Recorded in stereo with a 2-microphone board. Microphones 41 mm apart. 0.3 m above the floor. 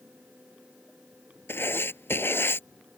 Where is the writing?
70° left (ahead or behind).